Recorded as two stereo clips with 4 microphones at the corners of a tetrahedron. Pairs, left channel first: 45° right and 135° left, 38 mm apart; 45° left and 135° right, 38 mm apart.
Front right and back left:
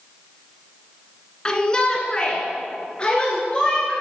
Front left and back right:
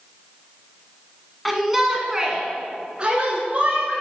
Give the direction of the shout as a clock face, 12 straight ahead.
2 o'clock.